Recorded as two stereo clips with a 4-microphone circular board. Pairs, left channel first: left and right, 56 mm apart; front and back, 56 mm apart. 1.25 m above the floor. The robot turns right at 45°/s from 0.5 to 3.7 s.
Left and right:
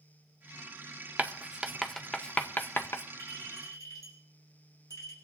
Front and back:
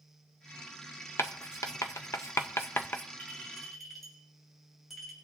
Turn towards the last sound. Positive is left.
turn(degrees=85)